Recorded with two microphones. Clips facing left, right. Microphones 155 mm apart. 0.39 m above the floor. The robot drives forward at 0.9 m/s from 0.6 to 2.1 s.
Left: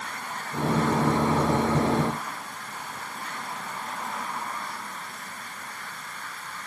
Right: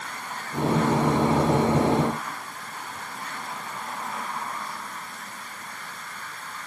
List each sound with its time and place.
Only background noise.